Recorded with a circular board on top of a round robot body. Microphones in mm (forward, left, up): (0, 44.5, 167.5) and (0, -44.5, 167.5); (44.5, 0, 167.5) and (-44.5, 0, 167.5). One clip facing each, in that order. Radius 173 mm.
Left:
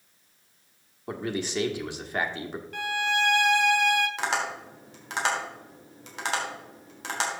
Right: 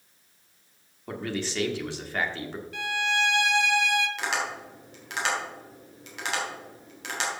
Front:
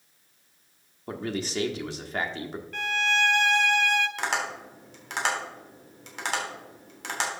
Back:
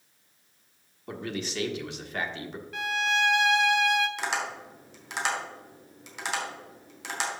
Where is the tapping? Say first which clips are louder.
Left 1 dB, front 2 dB; 40° left, 3.5 m.